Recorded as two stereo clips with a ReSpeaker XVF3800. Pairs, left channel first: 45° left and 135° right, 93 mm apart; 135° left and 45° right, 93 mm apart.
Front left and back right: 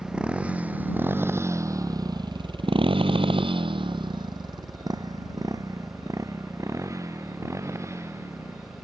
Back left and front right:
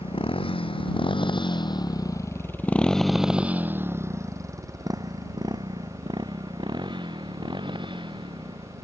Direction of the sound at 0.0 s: 145° left.